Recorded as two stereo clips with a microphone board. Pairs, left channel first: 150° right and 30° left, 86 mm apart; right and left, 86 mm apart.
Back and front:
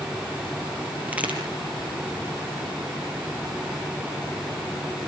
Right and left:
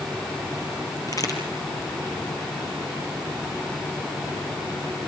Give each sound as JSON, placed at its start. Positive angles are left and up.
{"t": 1.1, "sound": "a crack", "azimuth_deg": -45, "distance_m": 5.0}